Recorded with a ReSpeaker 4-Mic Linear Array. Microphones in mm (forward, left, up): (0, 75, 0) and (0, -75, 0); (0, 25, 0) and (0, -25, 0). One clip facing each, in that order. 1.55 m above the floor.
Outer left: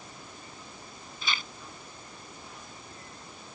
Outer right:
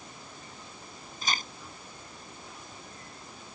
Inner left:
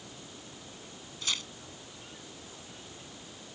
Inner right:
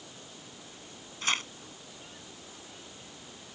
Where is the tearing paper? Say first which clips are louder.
Outer right 2 dB, inner right 5 dB; 40° right (ahead or behind).